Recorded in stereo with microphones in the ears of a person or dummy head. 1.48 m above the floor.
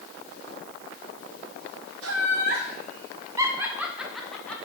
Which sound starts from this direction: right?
Laughter, at 2.0 s.